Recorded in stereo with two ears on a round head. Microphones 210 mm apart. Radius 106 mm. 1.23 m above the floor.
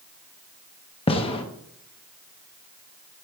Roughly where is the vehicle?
No vehicle in this recording.